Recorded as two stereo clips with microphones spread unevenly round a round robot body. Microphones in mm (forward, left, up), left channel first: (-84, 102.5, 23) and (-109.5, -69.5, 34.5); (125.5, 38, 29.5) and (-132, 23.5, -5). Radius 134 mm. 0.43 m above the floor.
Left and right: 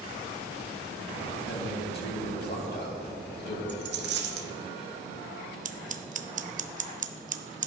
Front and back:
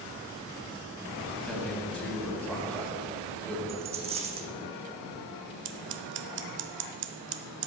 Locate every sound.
1.5 s a man speaking: 90° left, 3 m
3.7 s a dropped coin: 105° right, 1.2 m
5.7 s scissors: 140° right, 0.7 m